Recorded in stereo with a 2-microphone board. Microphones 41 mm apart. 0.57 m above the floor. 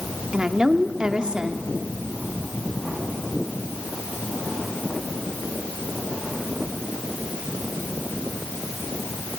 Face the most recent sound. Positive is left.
turn(degrees=-20)  # may be behind; listen again after turning